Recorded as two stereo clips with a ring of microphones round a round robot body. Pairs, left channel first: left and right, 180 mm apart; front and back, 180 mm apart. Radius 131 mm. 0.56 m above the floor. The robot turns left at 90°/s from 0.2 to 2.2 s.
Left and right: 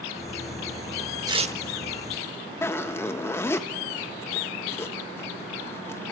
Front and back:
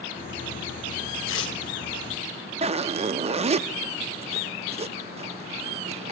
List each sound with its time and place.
1.3 s tearing paper: 20° right, 0.8 m; by 1.6 s 45° right, 0.8 m
2.6 s a zipper: 155° left, 0.5 m